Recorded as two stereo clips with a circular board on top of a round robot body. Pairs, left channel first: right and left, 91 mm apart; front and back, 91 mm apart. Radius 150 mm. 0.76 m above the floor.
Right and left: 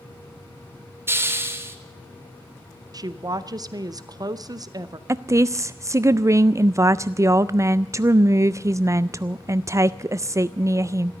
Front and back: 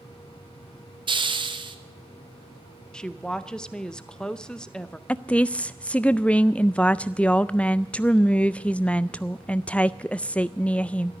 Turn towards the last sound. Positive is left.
turn(degrees=65)